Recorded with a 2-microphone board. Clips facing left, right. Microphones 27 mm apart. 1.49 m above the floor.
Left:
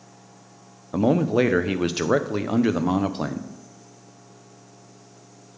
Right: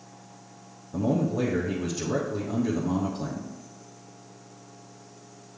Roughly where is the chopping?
No chopping in this recording.